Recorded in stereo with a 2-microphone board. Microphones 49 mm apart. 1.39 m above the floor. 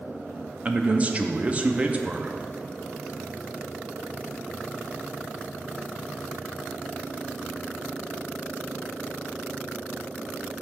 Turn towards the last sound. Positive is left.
turn(degrees=-30)  # may be behind; listen again after turning